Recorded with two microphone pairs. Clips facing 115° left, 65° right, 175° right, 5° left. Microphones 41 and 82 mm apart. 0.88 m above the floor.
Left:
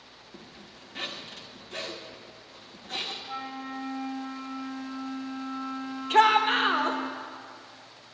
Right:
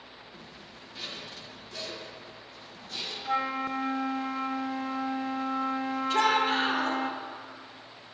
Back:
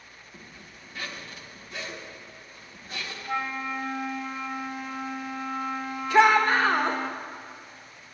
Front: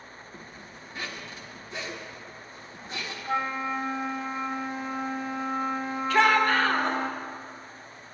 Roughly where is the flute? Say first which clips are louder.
Right 7 dB, front 2 dB; ahead right.